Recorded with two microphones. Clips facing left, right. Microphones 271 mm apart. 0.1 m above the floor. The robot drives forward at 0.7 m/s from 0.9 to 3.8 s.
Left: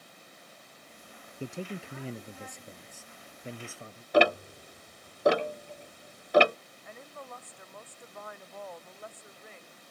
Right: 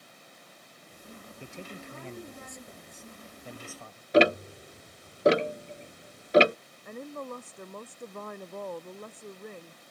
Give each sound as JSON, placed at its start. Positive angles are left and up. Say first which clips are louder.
{"t": 1.4, "sound": "a man speaking", "louder": "left 7 dB", "side_deg": 40}
{"t": 4.1, "sound": "ticking", "louder": "right 3 dB", "side_deg": -25}
{"t": 6.8, "sound": "a woman speaking", "louder": "right 9 dB", "side_deg": -50}